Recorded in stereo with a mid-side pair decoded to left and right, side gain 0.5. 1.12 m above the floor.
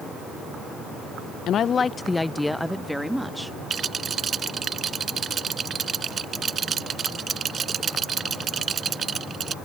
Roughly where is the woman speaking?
Ahead left.